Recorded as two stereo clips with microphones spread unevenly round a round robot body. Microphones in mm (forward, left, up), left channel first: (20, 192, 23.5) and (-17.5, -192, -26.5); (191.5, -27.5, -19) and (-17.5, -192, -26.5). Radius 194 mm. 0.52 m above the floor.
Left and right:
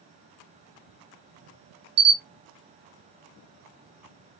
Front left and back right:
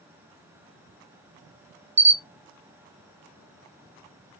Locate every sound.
2.0 s a camera shutter: 95° right, 1.2 m